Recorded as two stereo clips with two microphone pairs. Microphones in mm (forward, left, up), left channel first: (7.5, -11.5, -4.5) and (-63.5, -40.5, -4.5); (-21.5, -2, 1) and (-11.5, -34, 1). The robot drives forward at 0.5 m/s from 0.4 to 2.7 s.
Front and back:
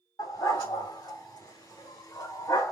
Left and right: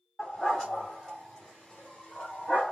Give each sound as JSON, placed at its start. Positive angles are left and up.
{"t": 0.2, "sound": "a dog barking", "azimuth_deg": 35, "distance_m": 2.5}